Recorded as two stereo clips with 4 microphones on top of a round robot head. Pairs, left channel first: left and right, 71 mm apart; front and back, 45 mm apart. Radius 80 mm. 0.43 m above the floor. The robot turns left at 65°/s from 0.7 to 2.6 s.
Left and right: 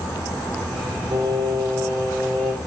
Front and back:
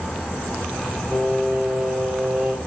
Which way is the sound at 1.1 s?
65° right.